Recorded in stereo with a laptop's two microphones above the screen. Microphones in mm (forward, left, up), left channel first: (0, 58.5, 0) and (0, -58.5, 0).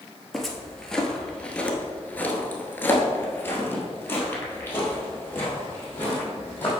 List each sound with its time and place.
0.3 s footsteps: centre (ahead or behind), 1.4 m; by 6.7 s 20° left (ahead or behind), 2.5 m